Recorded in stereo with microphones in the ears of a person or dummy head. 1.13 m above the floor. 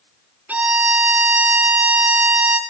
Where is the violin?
15° right (ahead or behind), 1.4 m.